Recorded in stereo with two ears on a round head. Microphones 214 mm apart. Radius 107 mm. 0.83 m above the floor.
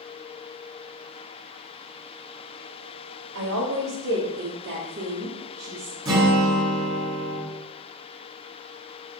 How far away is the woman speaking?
About 4 m.